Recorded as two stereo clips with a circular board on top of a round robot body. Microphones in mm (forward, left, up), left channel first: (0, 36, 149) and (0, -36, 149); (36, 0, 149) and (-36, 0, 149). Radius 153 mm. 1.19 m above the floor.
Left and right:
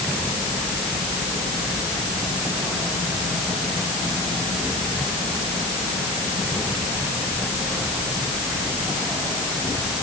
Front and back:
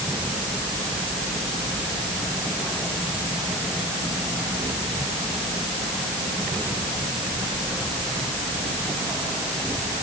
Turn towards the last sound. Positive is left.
No sound to turn to.